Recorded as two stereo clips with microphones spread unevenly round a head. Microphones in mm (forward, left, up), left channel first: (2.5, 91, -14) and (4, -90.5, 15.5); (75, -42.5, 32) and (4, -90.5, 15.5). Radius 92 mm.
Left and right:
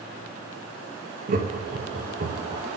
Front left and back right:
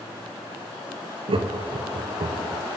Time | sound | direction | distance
1.3 | laughter | 140° right | 1.1 m